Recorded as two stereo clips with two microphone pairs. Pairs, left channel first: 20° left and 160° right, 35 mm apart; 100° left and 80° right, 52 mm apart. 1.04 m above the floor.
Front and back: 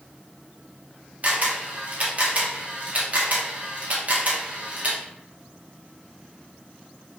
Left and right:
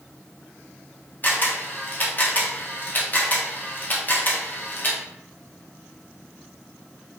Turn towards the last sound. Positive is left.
turn(degrees=155)